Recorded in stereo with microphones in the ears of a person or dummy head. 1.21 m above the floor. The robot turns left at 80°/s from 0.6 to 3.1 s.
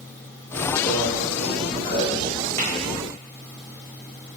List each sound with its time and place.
0.9 s a microwave: 60° left, 0.9 m; by 2.0 s 40° right, 0.9 m
2.6 s tapping: 35° right (ahead or behind), 0.6 m; by 2.7 s 25° right (ahead or behind), 0.6 m